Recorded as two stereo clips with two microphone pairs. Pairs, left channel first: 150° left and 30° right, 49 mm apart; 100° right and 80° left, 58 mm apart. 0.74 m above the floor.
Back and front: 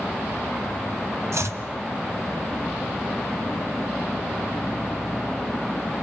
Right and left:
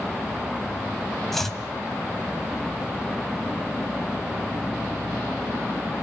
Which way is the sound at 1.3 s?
10° right.